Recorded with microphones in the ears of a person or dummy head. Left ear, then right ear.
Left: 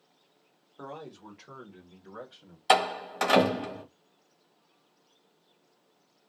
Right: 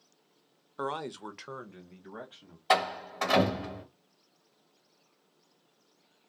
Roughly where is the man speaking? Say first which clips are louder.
Right 8 dB; right.